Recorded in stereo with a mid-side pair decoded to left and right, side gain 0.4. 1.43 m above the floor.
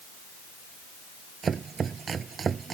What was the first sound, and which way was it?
Chopping, 50° right.